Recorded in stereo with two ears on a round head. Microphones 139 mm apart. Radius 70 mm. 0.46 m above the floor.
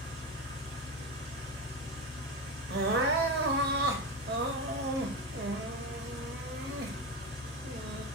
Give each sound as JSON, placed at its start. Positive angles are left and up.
{"t": 0.0, "sound": "an engine running", "side_deg": -50, "distance_m": 1.3}
{"t": 2.7, "sound": "crying", "side_deg": -65, "distance_m": 0.6}